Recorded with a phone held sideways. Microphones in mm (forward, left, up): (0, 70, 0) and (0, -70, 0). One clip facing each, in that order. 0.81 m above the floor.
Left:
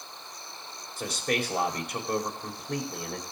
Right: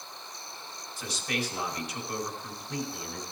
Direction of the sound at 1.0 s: 55° left (ahead or behind).